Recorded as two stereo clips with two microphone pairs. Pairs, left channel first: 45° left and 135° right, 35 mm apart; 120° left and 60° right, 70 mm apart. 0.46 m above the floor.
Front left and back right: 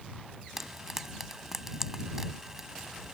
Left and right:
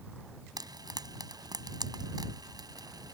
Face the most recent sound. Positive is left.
turn(degrees=-55)